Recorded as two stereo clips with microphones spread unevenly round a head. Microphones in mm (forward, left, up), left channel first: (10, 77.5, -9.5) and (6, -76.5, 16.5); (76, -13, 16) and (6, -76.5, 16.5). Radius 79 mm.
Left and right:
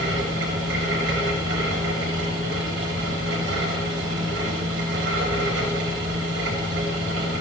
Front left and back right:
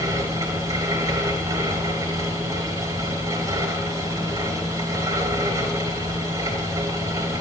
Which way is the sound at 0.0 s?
90° right.